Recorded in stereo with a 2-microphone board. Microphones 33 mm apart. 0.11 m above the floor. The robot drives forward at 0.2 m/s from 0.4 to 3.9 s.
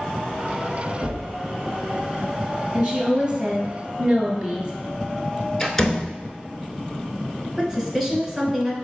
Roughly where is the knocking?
Right.